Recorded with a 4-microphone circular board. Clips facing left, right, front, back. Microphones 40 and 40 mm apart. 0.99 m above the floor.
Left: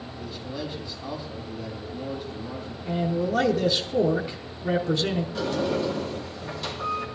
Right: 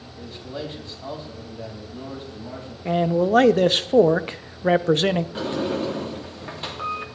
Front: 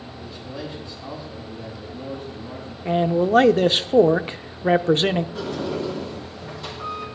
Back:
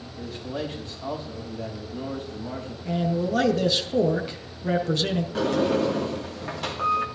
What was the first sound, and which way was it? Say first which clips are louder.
A man speaking: right 2 dB, back 4 dB; 135° right.